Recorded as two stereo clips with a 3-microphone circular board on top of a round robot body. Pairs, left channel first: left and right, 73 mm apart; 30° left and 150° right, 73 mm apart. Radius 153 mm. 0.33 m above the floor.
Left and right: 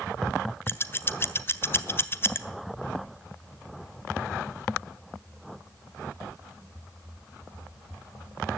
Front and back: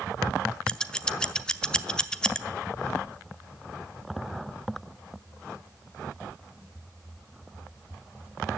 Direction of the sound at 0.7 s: 100° left.